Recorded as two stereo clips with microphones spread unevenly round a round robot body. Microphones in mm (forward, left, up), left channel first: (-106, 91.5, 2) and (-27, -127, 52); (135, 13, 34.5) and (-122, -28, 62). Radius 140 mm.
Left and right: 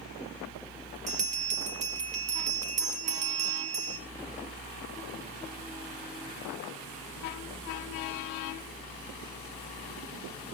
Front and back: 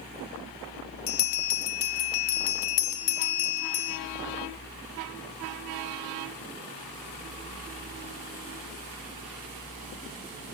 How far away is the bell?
About 1.2 m.